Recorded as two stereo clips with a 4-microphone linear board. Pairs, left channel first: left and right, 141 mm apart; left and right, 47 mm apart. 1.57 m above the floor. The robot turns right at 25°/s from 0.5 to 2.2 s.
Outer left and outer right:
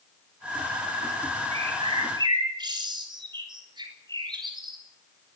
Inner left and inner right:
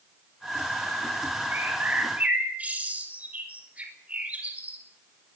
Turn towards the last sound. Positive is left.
turn(degrees=-30)  # may be behind; listen again after turning